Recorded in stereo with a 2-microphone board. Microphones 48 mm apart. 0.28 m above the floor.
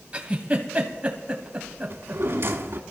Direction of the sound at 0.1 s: 20° right (ahead or behind).